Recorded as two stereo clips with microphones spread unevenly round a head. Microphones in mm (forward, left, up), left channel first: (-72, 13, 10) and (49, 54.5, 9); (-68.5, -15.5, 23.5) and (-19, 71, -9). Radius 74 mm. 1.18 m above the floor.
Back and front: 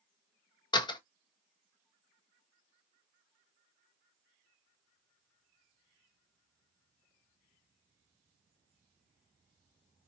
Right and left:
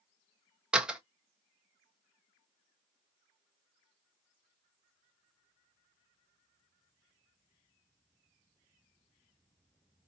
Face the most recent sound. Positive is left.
turn(degrees=140)